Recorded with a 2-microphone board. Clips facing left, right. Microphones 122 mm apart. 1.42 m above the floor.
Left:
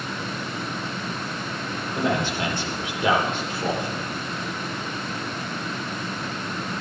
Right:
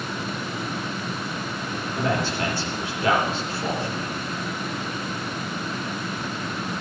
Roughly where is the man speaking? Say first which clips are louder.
Left 1 dB; left.